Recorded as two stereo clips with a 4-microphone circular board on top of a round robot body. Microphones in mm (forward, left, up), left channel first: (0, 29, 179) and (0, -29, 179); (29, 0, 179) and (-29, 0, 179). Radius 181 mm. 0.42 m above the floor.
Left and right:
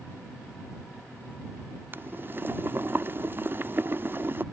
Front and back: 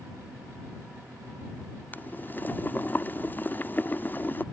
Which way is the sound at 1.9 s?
50° right.